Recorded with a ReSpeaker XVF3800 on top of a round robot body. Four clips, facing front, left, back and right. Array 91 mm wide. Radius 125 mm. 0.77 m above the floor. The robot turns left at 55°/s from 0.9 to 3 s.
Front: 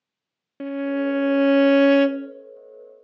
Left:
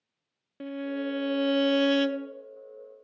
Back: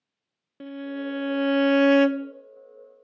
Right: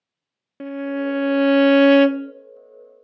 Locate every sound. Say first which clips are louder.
0.6 s a violin: right 7 dB, front 9 dB; 40° right, 0.5 m; by 2.3 s 120° right, 0.5 m